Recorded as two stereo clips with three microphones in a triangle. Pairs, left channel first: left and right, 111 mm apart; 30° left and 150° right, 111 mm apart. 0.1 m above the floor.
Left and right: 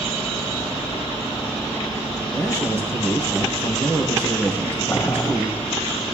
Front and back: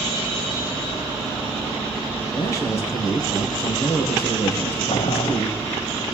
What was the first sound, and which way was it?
A man speaking, 30° right.